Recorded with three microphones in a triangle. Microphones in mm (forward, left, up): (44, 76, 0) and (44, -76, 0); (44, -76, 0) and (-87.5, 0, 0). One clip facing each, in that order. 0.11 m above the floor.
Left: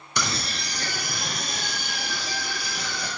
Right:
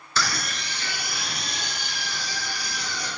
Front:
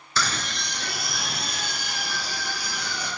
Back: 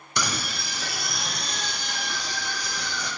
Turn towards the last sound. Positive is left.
turn(degrees=50)